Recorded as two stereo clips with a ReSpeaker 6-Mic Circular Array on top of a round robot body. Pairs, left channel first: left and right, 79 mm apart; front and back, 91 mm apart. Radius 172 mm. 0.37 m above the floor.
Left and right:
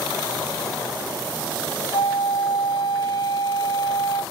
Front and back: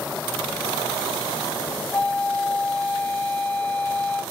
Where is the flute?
70° left, 1.5 m.